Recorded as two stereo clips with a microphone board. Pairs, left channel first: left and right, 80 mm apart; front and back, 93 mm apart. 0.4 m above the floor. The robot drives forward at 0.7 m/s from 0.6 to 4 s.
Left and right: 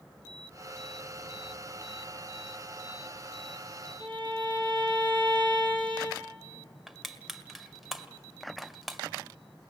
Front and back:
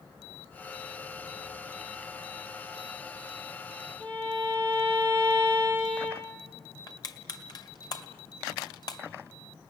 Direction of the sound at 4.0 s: 75° right.